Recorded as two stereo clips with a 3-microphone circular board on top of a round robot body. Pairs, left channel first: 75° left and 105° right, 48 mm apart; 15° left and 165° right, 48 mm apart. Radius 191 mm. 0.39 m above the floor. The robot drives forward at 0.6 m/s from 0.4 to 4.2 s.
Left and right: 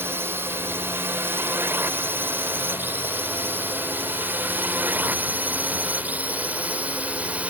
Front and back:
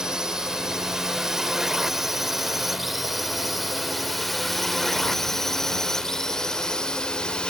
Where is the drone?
90° right; by 7.5 s 55° right.